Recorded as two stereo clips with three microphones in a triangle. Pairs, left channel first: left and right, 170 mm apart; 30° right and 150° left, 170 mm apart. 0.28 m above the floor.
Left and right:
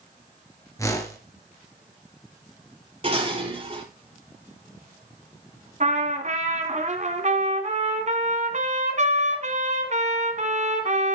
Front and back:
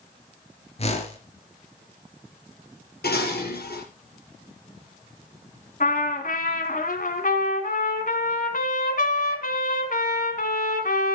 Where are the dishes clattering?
40° right, 4.5 m.